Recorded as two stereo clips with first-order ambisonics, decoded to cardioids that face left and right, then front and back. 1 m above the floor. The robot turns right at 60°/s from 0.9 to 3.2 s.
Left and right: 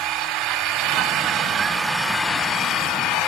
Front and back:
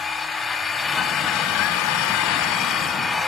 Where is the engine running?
70° right, 1.3 m; by 3.3 s 70° left, 1.3 m.